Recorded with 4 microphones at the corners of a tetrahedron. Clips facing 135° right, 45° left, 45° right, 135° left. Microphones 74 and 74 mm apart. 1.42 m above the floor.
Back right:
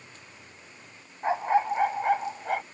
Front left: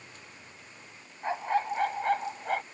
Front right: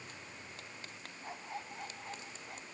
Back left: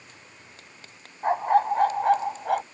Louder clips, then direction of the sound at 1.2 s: Back right 5 dB, back left 25 dB; 155° left.